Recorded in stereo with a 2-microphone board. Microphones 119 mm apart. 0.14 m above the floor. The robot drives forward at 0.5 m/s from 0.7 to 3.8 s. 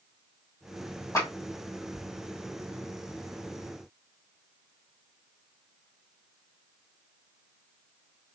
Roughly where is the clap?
Left.